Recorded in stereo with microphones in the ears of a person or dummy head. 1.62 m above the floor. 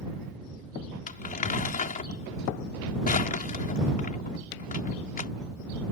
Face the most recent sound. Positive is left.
turn(degrees=40)  # may be behind; listen again after turning